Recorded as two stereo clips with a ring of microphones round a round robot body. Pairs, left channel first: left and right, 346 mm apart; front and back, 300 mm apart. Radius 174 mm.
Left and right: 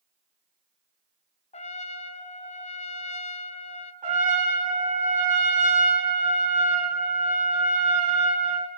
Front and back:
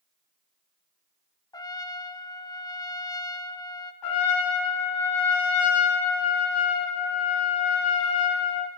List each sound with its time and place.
1.5 s a trumpet: 55° left, 0.6 m
4.0 s a trumpet: 20° right, 3 m